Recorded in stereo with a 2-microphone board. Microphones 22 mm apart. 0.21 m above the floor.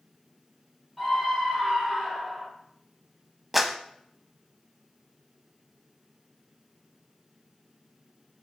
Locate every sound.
1.0 s a scream: centre (ahead or behind), 6.5 m; by 2.5 s 5° left (ahead or behind), 6 m
3.5 s a clap: 5° right (ahead or behind), 1.1 m